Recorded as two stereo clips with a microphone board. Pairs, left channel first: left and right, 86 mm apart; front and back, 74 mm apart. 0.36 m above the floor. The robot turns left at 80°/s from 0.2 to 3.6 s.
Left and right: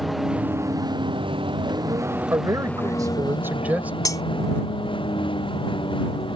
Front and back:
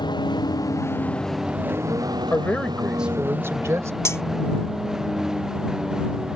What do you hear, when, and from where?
0.0 s a vehicle: straight ahead; by 6.4 s 100° left
2.3 s a man speaking: 50° right; by 3.9 s 155° right
4.0 s cutlery clinking: 45° left